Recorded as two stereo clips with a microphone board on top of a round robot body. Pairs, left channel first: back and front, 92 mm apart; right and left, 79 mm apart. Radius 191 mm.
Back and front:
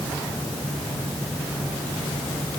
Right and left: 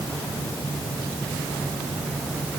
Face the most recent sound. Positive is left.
No sound to turn to.